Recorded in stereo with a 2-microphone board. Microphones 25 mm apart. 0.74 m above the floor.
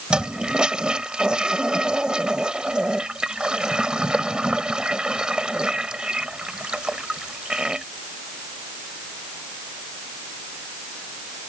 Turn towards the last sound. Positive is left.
turn(degrees=-35)  # may be behind; listen again after turning